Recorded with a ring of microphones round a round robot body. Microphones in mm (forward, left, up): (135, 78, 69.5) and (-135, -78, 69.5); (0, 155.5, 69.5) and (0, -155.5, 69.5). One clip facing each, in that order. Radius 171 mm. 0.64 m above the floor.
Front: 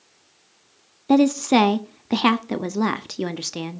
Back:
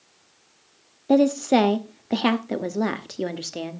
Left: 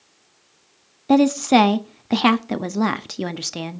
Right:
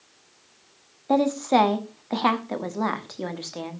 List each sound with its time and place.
1.1 s a woman speaking: 100° left, 1.0 m